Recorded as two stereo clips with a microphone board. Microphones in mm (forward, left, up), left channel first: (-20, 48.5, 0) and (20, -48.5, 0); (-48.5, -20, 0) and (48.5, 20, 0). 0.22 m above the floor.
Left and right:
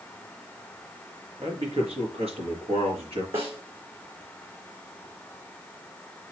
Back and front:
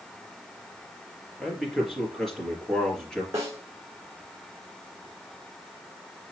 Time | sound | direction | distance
1.4 | a man speaking | 70° right | 4 m
3.3 | a snare drum | 40° right | 2.5 m